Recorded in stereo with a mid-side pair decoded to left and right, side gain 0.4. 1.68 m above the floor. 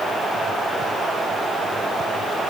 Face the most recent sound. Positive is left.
No sound to turn to.